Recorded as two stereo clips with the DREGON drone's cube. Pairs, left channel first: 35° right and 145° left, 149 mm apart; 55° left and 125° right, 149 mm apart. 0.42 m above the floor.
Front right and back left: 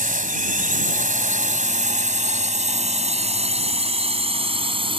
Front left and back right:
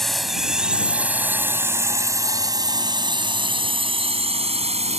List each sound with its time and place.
0.0 s a drone: 145° left; by 5.0 s 165° right